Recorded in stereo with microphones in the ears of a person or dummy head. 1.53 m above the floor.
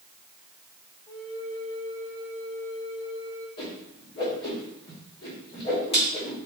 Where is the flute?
20° left (ahead or behind), 3 m.